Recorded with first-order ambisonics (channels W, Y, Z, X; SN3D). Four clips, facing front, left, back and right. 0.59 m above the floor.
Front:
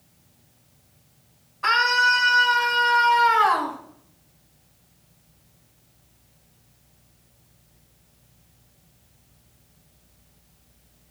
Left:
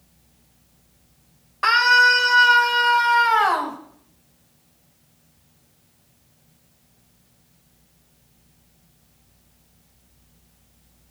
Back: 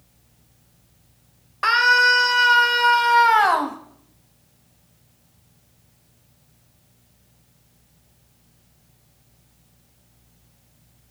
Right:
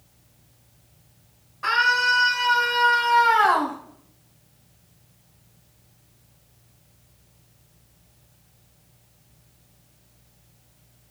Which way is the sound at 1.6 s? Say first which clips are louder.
Left 5 dB, back 3 dB; 140° left.